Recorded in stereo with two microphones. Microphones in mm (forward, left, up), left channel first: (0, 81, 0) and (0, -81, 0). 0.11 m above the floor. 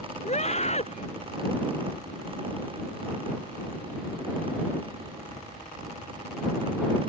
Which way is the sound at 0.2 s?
40° left (ahead or behind).